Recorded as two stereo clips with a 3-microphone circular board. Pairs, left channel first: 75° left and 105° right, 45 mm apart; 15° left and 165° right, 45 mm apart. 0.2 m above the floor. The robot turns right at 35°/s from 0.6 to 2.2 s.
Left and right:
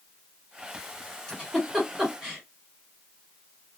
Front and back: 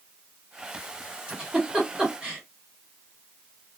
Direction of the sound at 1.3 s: 140° left.